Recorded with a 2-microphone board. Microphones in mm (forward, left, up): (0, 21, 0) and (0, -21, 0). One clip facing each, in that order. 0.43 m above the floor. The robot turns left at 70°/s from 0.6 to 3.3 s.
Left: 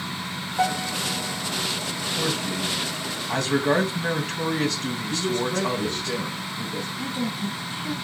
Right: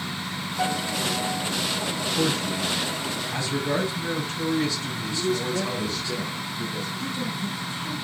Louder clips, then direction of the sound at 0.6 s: Left 2 dB; 75° left.